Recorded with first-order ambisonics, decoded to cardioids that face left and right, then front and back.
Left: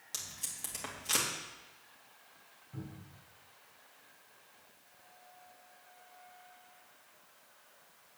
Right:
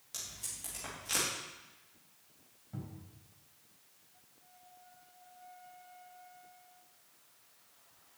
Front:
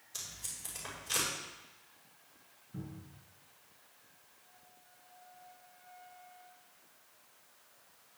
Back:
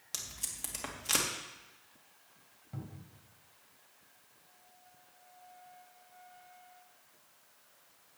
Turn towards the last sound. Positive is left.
turn(degrees=-165)